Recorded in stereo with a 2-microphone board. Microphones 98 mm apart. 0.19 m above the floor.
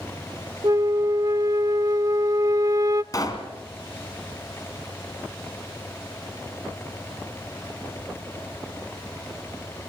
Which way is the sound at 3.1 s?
40° left (ahead or behind).